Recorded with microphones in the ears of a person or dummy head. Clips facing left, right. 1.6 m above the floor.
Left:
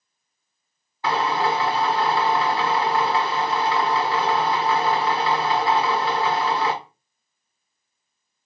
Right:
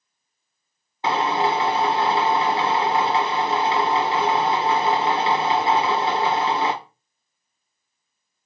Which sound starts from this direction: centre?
A drill, at 1.0 s.